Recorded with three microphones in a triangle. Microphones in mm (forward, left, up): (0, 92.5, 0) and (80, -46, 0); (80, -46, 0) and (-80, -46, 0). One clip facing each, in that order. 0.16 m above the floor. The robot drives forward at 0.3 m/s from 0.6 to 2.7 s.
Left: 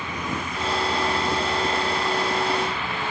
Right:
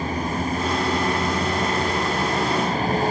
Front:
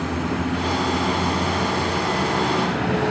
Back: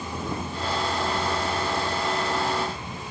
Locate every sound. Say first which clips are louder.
0.0 s a vehicle: right 5 dB, front 8 dB; 10° right